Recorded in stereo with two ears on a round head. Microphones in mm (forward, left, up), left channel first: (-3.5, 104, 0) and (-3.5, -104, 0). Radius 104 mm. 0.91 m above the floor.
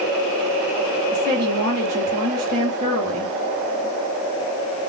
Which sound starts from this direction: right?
A woman speaking, at 1.1 s.